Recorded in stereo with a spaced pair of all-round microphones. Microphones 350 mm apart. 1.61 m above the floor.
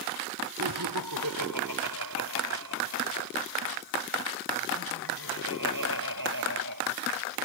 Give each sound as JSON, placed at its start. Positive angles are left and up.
{"t": 0.6, "sound": "laughter", "side_deg": -80}